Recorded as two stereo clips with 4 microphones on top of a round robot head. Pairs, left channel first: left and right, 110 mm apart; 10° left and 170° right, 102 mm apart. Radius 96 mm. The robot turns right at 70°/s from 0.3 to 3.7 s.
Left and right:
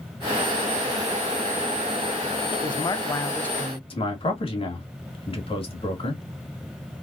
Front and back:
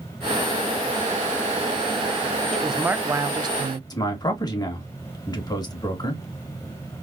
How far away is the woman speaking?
About 0.7 m.